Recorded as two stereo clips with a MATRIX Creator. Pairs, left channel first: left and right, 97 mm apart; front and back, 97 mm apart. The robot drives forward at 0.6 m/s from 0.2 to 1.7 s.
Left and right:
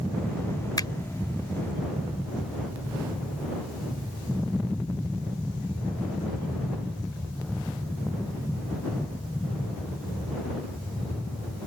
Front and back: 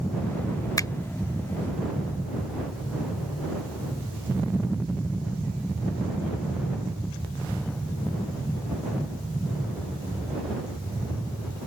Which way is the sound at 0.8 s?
50° left.